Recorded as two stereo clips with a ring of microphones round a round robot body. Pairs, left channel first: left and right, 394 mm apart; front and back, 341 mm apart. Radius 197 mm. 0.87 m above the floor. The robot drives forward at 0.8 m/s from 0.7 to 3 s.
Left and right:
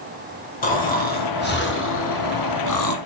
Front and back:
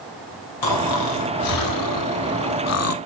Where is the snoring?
20° left, 2.5 m; by 3.0 s 50° left, 1.2 m.